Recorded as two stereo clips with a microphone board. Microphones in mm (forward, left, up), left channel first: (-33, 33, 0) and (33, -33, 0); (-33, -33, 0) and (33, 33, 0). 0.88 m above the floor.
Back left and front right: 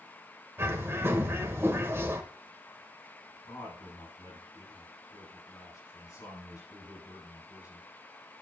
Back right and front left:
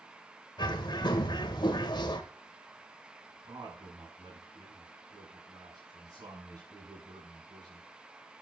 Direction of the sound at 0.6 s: 105° right.